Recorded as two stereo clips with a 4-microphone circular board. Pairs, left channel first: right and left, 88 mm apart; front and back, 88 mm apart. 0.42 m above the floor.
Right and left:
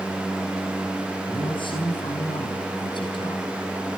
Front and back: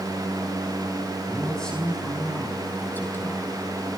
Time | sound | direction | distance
1.3 | a man speaking | 85° right | 4.5 m